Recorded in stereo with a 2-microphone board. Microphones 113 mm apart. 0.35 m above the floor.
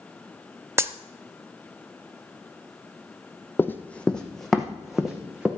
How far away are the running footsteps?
About 0.9 m.